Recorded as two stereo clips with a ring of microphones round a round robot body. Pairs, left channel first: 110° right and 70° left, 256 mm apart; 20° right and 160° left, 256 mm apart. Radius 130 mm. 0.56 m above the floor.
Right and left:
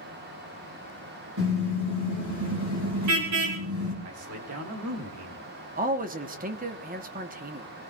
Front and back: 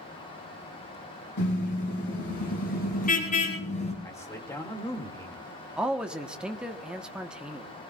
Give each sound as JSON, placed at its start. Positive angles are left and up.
{"t": 1.4, "sound": "a car horn", "azimuth_deg": 25, "distance_m": 7.0}
{"t": 4.0, "sound": "a man speaking", "azimuth_deg": 55, "distance_m": 2.0}
{"t": 5.8, "sound": "a man speaking", "azimuth_deg": 75, "distance_m": 1.1}